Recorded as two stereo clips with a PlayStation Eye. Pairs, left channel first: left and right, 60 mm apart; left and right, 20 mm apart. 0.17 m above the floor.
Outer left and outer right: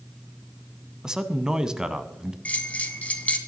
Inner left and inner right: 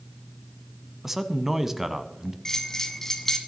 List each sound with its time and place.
1.0 s a man speaking: 15° right (ahead or behind), 1.0 m
2.5 s a bell: 25° left (ahead or behind), 1.6 m